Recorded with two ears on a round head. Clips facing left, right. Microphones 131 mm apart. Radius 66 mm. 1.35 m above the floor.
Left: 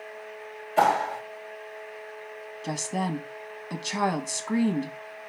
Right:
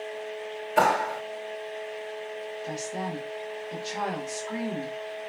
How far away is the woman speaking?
About 1.0 m.